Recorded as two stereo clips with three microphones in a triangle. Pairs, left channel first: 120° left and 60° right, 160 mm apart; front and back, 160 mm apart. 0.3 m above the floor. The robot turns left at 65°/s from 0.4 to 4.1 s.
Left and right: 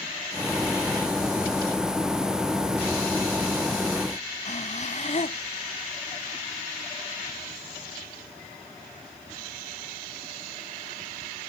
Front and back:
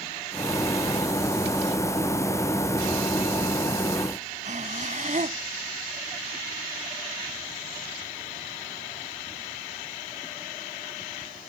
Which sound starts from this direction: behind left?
Breathing, at 4.5 s.